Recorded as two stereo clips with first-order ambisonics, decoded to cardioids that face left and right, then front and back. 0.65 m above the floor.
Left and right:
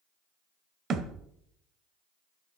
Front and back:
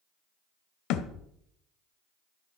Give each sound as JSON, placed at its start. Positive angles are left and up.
{"t": 0.9, "sound": "a thud", "azimuth_deg": -35, "distance_m": 1.1}